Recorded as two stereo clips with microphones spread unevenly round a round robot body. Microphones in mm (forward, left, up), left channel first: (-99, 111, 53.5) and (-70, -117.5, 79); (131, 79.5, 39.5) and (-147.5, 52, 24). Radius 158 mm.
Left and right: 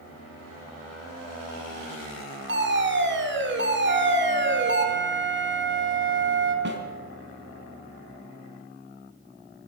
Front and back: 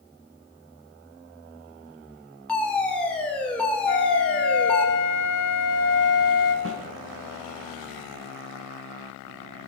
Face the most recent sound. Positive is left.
turn(degrees=-125)